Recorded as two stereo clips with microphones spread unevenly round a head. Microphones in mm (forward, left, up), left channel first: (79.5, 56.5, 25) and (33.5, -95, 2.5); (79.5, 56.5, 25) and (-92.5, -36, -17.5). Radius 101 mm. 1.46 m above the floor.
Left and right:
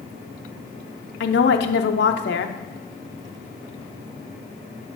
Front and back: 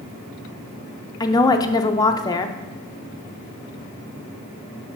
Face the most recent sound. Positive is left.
turn(degrees=95)